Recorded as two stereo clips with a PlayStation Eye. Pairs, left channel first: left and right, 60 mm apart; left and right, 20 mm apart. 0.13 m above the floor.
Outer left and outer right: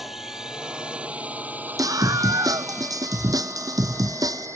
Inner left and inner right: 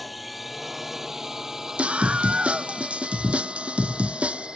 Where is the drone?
5° right (ahead or behind); by 4.6 s 50° right (ahead or behind).